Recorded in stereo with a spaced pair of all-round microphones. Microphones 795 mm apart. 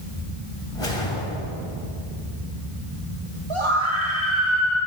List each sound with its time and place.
0.8 s a whoosh: 40° left (ahead or behind), 2.5 m
3.5 s a scream: 35° right (ahead or behind), 1.6 m